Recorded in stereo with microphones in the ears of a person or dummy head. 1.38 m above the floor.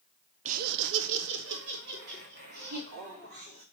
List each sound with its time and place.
0.5 s laughter: 40° right (ahead or behind), 0.6 m; by 3.6 s 55° right (ahead or behind), 3.5 m